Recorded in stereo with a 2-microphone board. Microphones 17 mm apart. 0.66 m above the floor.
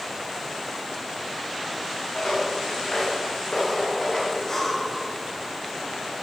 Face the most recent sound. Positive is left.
turn(degrees=25)  # may be behind; listen again after turning